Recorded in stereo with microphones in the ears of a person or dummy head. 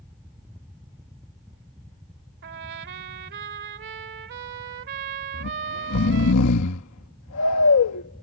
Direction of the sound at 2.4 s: 55° right (ahead or behind).